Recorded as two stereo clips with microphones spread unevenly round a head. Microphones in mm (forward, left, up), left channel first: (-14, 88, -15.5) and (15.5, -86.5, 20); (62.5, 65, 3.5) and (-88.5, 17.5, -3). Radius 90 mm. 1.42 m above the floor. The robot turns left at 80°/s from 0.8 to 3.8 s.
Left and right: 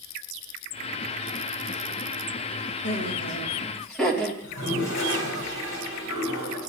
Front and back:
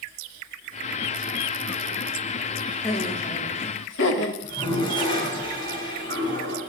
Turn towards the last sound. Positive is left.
turn(degrees=75)